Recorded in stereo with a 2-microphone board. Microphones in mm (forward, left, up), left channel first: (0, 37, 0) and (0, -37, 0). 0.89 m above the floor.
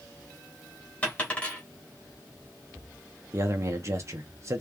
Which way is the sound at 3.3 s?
40° right (ahead or behind).